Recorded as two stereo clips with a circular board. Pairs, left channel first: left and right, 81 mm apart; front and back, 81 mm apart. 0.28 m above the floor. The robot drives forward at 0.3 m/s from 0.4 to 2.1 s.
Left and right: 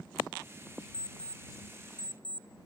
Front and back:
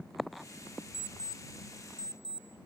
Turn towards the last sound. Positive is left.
turn(degrees=170)